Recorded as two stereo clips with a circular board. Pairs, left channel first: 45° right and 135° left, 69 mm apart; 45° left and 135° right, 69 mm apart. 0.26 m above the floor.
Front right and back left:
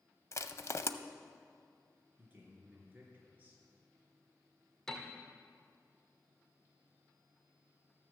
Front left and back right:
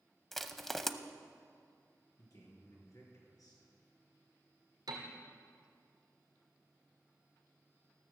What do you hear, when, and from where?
0.3 s crushing: 40° right, 0.5 m
2.2 s a man speaking: 70° left, 3.5 m
4.9 s a piano: 130° right, 1.9 m